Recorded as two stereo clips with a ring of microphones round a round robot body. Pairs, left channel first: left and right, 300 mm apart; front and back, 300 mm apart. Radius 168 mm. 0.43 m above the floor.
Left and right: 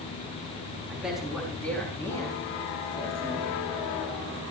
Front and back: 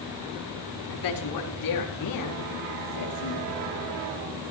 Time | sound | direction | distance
0.9 | a man speaking | 5° right | 5.5 m